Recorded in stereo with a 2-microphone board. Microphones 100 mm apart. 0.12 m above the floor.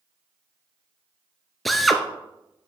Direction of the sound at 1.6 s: Centre (ahead or behind).